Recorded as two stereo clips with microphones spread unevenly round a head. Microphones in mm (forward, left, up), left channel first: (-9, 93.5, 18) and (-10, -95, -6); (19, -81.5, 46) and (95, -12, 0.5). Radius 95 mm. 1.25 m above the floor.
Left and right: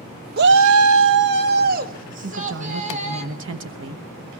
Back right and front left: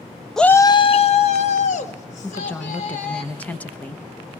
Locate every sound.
0.4 s a shout: 50° right, 0.9 m; by 3.2 s 145° right, 4.5 m
2.2 s a woman speaking: 60° right, 1.1 m